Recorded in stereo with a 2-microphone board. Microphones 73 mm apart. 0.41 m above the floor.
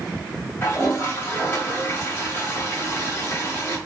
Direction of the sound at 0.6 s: 35° left (ahead or behind).